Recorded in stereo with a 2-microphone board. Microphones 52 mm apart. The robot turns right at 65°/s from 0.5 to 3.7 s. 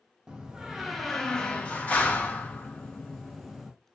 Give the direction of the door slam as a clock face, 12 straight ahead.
1 o'clock.